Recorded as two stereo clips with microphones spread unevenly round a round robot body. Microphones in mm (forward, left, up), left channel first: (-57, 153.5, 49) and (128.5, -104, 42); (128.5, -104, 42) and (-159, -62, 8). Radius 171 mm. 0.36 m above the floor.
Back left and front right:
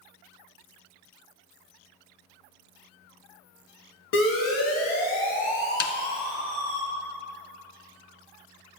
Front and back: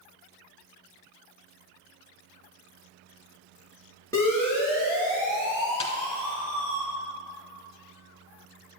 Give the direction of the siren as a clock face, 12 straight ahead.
10 o'clock.